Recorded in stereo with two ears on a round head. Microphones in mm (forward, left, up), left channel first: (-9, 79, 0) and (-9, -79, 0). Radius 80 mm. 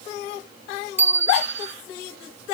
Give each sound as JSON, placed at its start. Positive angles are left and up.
{"t": 1.0, "sound": "a bicycle bell", "side_deg": -10}